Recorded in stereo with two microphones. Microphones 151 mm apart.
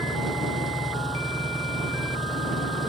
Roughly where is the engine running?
Centre.